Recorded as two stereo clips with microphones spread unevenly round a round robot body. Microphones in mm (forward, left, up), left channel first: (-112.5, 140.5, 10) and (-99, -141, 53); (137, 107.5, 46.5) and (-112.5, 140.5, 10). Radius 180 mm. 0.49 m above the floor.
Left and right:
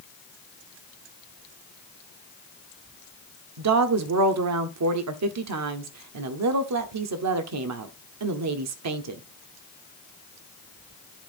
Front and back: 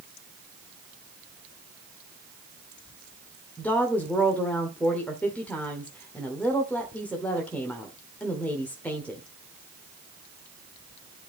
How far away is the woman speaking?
About 1.1 m.